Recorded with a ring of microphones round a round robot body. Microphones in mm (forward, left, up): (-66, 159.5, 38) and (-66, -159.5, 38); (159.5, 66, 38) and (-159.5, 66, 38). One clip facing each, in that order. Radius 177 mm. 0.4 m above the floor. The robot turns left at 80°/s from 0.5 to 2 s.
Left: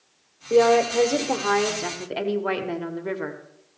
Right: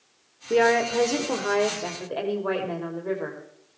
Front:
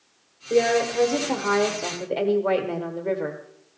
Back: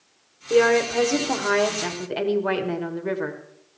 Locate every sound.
0.5 s a woman speaking: 115° right, 1.5 m; by 3.4 s 125° left, 1.5 m